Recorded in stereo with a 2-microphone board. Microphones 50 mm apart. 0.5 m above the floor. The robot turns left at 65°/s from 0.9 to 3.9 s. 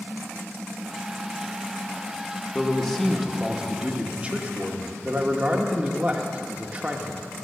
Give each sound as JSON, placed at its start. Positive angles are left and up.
{"t": 2.5, "sound": "a man speaking", "side_deg": 10, "distance_m": 1.0}